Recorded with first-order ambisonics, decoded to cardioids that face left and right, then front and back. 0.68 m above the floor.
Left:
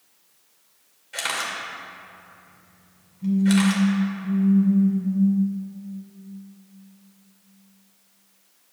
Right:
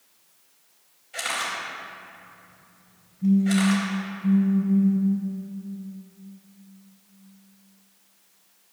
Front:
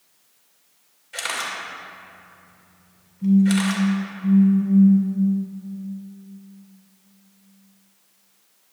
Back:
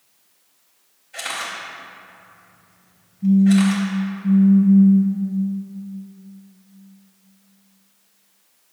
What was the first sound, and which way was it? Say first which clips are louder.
A camera shutter: left 1 dB, front 1 dB; 45° left.